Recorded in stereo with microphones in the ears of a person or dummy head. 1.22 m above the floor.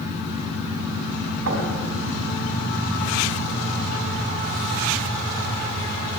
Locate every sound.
1.5 s knocking: 70° right (ahead or behind), 5.5 m